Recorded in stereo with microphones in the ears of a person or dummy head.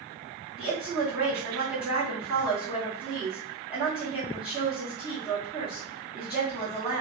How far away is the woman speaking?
About 1.6 m.